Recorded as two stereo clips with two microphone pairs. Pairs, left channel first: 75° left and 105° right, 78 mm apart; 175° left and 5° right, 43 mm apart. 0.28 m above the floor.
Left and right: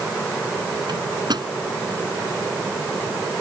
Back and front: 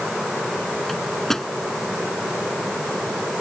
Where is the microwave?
100° right.